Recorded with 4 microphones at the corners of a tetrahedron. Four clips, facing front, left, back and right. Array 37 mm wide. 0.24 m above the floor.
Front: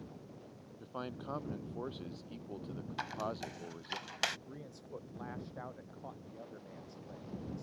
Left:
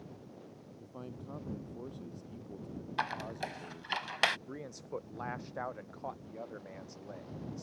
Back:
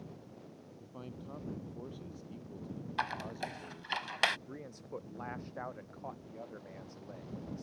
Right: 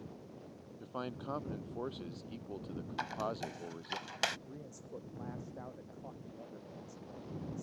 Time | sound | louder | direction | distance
0.8 | a man speaking | right 6 dB, front 6 dB | 50° right | ?
3.0 | a squeak | left 2 dB, back 3 dB | 135° left | ?
4.5 | a man speaking | left 6 dB, back 3 dB | 105° left | ?